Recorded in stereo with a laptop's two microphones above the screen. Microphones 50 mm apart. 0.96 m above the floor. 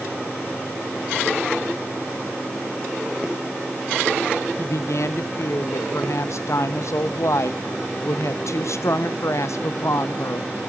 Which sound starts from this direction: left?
A woman speaking, at 4.6 s.